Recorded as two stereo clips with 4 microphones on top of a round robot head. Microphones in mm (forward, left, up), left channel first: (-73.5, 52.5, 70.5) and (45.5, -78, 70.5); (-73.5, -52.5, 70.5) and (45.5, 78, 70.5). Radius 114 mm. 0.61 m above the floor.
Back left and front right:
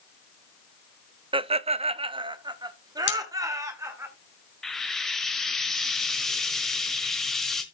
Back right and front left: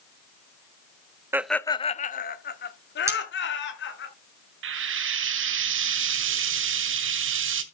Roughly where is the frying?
Ahead left.